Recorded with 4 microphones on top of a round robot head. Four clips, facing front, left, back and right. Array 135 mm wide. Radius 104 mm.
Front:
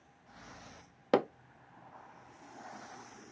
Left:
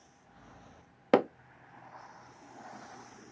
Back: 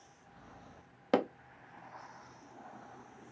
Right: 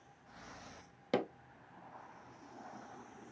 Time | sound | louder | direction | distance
1.1 | hammering | left 10 dB, front 1 dB | 85° left | 0.7 m